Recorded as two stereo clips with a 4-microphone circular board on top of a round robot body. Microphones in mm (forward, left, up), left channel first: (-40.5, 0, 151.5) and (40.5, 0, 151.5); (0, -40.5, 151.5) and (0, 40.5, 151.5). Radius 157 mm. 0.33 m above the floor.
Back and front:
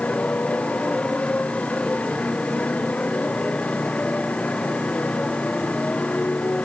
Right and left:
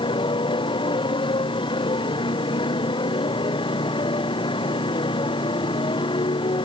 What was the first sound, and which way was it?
A motorcycle, 105° right.